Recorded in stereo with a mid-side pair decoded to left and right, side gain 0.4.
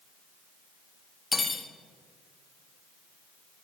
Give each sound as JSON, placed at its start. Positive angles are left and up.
{"t": 1.3, "sound": "cutlery clinking", "azimuth_deg": 25, "distance_m": 1.5}